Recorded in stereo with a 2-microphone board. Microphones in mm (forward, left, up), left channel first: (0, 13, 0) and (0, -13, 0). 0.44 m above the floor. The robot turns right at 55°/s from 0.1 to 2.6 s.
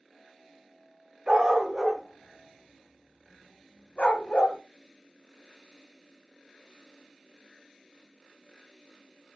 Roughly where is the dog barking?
Right.